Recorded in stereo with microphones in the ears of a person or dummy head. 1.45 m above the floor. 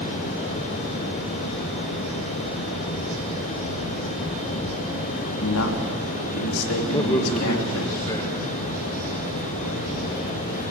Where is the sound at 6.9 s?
20° left (ahead or behind), 2.0 m.